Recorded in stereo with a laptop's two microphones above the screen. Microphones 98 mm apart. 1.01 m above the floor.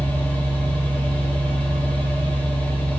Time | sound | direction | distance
0.0 | a machine running | 15° left (ahead or behind) | 2.5 m